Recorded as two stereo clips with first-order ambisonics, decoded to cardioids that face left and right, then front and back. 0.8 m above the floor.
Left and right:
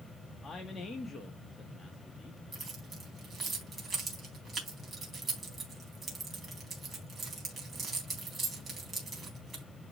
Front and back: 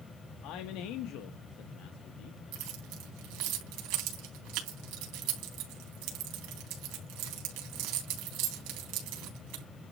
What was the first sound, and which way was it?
A man speaking, 15° left.